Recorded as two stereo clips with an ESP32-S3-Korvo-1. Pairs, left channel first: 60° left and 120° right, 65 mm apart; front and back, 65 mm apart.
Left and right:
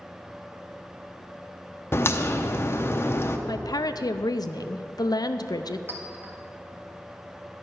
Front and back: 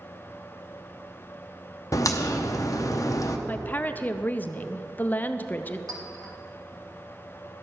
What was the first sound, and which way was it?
A crack, 15° left.